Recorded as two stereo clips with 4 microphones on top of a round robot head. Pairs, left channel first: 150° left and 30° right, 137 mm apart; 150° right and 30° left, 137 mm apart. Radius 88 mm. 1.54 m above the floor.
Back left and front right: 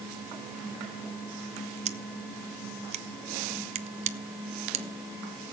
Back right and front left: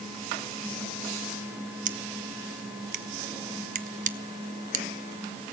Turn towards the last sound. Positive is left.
turn(degrees=5)